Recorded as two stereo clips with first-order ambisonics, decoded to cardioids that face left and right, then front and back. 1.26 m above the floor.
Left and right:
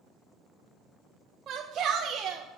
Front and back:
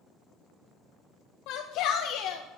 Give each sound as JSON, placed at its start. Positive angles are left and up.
{"t": 1.5, "sound": "a shout", "azimuth_deg": -30, "distance_m": 0.8}